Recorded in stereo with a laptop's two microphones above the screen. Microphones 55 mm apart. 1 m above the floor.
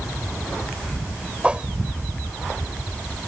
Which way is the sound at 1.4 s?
20° right (ahead or behind).